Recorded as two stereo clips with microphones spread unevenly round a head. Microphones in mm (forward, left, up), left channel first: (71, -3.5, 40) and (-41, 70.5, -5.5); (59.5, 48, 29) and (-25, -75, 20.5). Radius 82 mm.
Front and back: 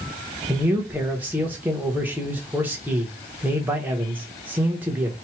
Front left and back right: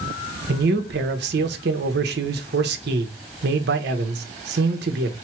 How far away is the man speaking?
About 0.9 m.